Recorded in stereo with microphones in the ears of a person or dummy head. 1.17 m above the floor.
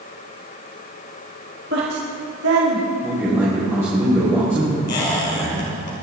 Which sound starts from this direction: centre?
A man speaking, at 3.0 s.